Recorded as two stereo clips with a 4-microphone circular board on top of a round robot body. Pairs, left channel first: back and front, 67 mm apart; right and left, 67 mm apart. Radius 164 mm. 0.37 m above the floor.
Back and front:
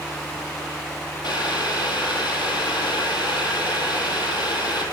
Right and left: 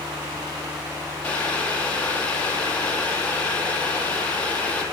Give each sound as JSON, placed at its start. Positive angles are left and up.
{"t": 1.2, "sound": "boiling", "azimuth_deg": -160, "distance_m": 6.0}